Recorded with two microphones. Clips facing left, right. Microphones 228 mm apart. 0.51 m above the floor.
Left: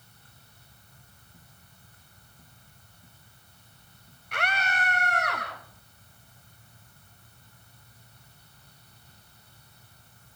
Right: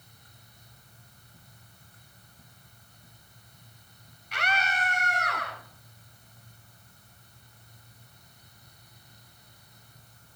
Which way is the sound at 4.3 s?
55° left (ahead or behind).